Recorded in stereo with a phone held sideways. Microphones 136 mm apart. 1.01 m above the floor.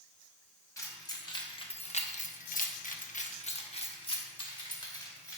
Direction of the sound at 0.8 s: 25° left (ahead or behind).